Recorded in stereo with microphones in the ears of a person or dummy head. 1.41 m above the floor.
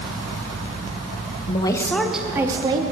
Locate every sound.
1.5 s a woman speaking: 30° left (ahead or behind), 0.7 m; by 2.8 s 25° right (ahead or behind), 1.0 m